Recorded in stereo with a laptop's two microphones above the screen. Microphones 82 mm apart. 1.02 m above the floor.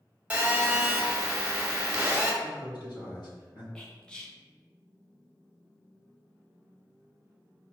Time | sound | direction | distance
0.3 | a phone buzzing | 20° right (ahead or behind) | 0.8 m
2.4 | a man speaking | 70° left (ahead or behind) | 1.6 m
3.8 | whispering | 10° left (ahead or behind) | 0.5 m